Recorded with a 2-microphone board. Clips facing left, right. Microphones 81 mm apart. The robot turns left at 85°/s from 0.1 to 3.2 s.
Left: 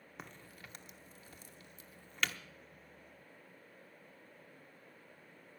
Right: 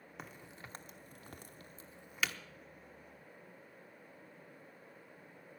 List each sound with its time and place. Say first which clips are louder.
0.2 s a crack: right 1 dB; centre (ahead or behind), 0.9 m; by 2.4 s 5° left (ahead or behind), 0.9 m